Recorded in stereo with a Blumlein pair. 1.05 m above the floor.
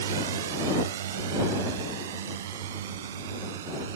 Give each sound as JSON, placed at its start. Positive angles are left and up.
{"t": 0.0, "sound": "a drone", "azimuth_deg": -60}